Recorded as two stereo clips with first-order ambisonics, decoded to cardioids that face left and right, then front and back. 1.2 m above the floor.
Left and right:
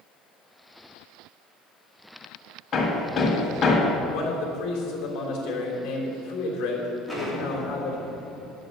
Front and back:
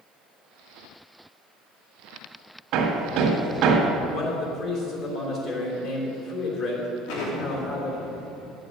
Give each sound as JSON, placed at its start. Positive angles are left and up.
{"t": 2.7, "sound": "hammering", "azimuth_deg": 150, "distance_m": 1.9}
{"t": 4.1, "sound": "a man speaking", "azimuth_deg": 55, "distance_m": 3.0}
{"t": 7.1, "sound": "an explosion", "azimuth_deg": 0, "distance_m": 2.5}